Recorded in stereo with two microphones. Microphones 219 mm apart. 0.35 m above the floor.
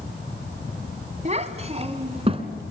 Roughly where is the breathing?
I don't hear breathing.